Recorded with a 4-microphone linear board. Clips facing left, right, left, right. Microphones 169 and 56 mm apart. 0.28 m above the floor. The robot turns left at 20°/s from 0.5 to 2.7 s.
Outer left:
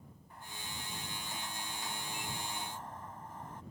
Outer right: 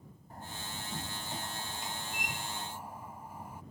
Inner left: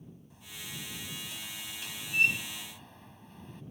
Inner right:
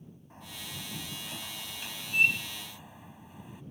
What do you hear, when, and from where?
0.3 s a door slam: 125° right; by 3.6 s 170° right